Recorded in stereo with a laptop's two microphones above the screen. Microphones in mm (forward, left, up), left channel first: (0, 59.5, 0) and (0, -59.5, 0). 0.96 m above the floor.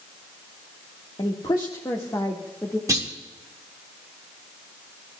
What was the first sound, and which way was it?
A woman speaking, 45° left (ahead or behind).